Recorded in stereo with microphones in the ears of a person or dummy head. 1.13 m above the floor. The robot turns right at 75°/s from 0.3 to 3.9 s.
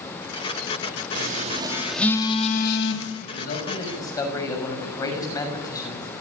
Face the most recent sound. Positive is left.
turn(degrees=165)